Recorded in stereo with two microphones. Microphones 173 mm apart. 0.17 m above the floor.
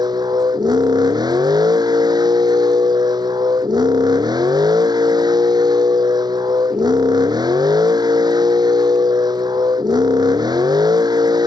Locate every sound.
0.0 s a vehicle: 25° right (ahead or behind)